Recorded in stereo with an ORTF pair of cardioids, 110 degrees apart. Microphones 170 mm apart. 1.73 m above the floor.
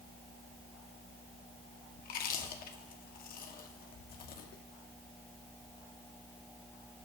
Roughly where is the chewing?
Ahead left.